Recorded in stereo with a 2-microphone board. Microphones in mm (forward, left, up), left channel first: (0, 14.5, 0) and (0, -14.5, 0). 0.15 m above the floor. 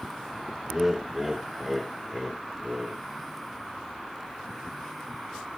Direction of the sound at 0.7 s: 10° right (ahead or behind).